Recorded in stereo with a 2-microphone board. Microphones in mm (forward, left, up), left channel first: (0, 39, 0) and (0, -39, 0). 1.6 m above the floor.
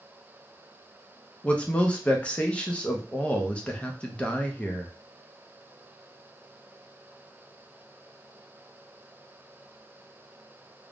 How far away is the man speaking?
About 0.5 m.